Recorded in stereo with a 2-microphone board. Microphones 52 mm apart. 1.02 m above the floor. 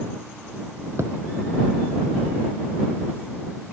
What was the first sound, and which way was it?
A thud, 60° right (ahead or behind).